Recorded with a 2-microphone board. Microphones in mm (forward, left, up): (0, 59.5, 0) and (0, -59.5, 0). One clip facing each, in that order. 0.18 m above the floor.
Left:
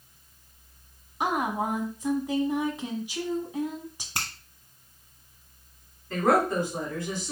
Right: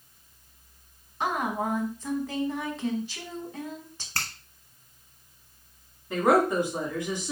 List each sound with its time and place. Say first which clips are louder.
1.2 s a woman speaking: left 1 dB; 15° left (ahead or behind), 1.1 m
4.2 s a finger snap: even; 15° left (ahead or behind), 1.0 m
6.1 s a woman speaking: right 1 dB; 15° right (ahead or behind), 2.0 m